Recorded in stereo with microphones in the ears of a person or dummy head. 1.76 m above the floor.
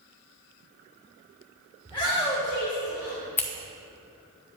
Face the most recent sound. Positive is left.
turn(degrees=15)  # may be behind; listen again after turning